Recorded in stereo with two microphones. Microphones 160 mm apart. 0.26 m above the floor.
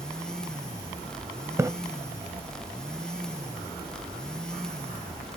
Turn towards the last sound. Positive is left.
turn(degrees=-15)  # may be behind; listen again after turning